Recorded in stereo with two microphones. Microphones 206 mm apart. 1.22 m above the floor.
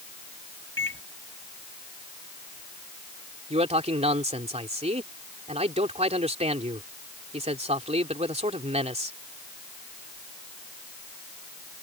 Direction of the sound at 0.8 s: 80° left.